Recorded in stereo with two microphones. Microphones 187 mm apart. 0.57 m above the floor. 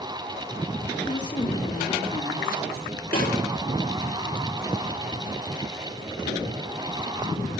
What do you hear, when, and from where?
1.1 s a woman speaking: 20° left (ahead or behind), 1.7 m; by 2.9 s 55° left (ahead or behind), 1.8 m
3.1 s a snare drum: 55° left (ahead or behind), 3.5 m